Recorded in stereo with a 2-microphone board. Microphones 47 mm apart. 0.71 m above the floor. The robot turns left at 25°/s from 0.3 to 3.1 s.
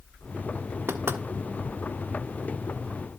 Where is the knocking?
65° right (ahead or behind), 1.6 m; by 1.2 s 60° right (ahead or behind), 1.6 m.